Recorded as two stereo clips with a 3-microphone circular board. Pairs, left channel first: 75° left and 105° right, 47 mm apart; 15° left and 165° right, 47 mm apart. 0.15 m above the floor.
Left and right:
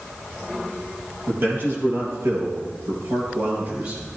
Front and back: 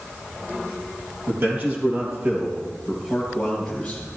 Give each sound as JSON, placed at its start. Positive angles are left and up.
{"t": 1.3, "sound": "a man speaking", "azimuth_deg": -140, "distance_m": 4.5}